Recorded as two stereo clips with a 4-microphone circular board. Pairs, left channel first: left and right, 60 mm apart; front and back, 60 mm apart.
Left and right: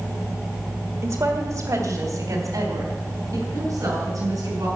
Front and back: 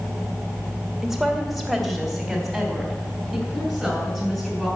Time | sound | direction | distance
1.0 | a woman speaking | 100° right | 1.5 m